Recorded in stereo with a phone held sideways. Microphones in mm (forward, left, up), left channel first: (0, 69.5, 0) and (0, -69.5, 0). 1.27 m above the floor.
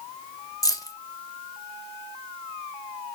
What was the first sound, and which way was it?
Keys jangling, 25° left (ahead or behind).